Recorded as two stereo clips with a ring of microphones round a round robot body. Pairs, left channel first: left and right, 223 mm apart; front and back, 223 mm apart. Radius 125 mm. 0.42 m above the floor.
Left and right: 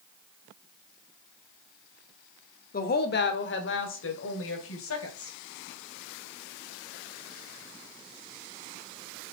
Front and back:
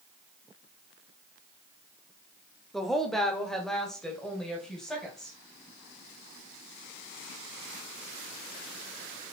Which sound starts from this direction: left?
A woman speaking, at 2.7 s.